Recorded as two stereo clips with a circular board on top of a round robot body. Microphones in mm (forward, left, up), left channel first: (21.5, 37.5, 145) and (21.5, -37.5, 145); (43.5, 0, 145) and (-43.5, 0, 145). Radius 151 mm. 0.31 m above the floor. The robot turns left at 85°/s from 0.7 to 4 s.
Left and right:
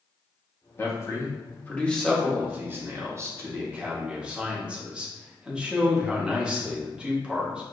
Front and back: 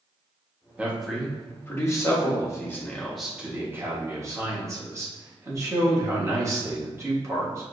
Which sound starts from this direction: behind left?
A man speaking, at 0.8 s.